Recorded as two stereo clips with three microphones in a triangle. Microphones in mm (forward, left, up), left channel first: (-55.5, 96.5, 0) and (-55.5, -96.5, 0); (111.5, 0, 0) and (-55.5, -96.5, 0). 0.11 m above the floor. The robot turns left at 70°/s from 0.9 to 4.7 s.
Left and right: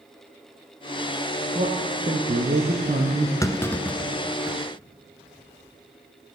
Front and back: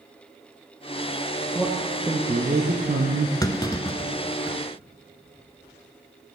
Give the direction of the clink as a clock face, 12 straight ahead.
I don't hear a clink.